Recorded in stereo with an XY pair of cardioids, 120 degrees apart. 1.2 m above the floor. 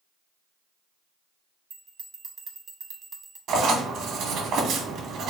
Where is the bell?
35° right, 0.7 m.